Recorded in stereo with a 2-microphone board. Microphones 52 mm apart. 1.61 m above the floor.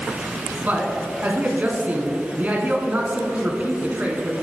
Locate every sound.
0.6 s a man speaking: 25° right (ahead or behind), 1.2 m